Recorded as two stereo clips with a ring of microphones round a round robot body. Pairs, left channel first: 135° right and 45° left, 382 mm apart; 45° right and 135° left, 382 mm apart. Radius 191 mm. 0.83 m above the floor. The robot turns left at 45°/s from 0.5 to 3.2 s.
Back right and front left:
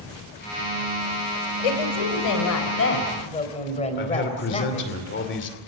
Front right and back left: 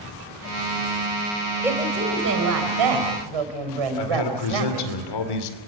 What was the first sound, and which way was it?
A woman speaking, 140° right.